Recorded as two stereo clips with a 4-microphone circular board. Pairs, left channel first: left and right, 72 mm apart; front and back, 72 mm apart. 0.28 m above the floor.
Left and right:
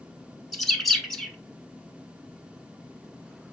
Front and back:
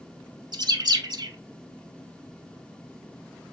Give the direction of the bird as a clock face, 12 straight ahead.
6 o'clock.